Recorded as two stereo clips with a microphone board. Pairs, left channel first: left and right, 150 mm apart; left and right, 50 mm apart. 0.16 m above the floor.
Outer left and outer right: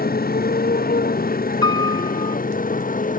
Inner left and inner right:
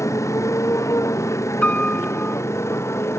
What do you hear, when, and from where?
0.0 s a motorcycle: 90° left; by 3.2 s 65° left (ahead or behind)
1.6 s a piano: 30° left (ahead or behind)